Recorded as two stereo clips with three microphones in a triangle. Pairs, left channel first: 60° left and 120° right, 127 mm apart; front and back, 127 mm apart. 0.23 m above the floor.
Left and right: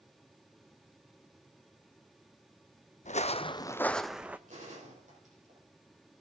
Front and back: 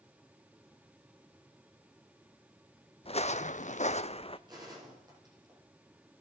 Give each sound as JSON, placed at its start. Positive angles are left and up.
{"t": 3.0, "sound": "footsteps", "azimuth_deg": 40, "distance_m": 0.7}
{"t": 4.5, "sound": "a gunshot", "azimuth_deg": -125, "distance_m": 10.0}